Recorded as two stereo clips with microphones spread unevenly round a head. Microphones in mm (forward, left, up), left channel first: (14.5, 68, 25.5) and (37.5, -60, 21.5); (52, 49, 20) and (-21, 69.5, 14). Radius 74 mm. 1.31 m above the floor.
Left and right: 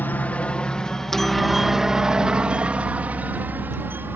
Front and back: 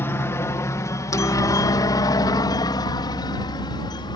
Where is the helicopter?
30° left; by 4.2 s 5° right.